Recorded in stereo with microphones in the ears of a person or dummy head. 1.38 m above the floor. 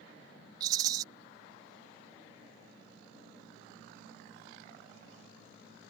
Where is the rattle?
20° right (ahead or behind).